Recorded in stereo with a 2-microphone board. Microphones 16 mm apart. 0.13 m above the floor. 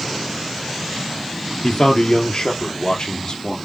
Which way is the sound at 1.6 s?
55° left (ahead or behind).